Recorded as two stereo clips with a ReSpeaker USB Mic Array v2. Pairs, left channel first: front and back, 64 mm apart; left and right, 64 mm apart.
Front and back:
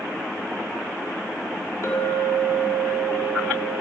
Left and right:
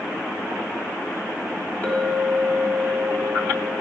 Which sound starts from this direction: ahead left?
A clink, at 1.8 s.